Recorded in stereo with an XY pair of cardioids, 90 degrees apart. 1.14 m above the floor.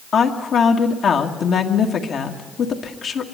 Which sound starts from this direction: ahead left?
A woman speaking, at 0.1 s.